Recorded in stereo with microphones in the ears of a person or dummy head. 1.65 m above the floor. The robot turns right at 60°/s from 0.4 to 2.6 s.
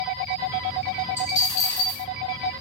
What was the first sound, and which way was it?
A dropped coin, 20° left.